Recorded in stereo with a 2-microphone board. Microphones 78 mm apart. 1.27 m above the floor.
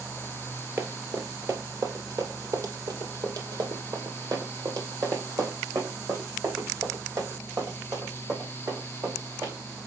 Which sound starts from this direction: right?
Running footsteps, at 0.8 s.